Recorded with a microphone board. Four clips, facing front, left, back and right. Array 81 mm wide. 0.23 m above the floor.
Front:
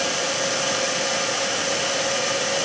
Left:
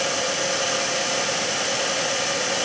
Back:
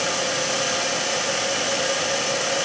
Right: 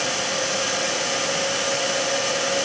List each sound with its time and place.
Only background noise.